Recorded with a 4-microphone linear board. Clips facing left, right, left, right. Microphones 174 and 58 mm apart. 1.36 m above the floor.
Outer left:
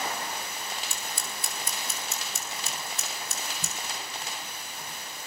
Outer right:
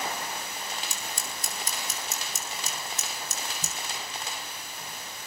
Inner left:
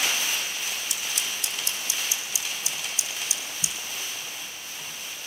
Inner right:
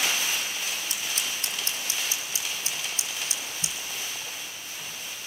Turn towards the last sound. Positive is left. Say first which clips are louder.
# even, even
turn(degrees=-45)  # may be behind; listen again after turning